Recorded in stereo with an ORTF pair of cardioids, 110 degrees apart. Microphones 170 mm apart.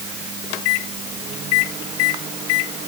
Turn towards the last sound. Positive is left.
No sound to turn to.